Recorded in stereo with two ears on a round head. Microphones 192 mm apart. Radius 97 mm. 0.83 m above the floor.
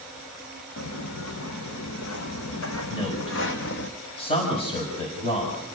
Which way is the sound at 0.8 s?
70° left (ahead or behind).